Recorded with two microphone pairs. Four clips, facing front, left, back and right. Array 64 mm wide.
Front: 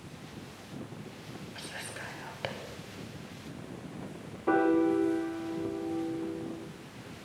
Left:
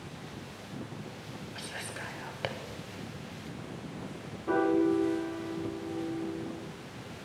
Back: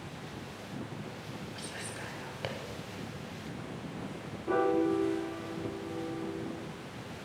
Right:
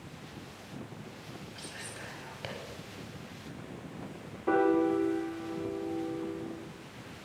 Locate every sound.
1.6 s whispering: 60° left, 1.4 m
4.5 s a piano: 35° right, 4 m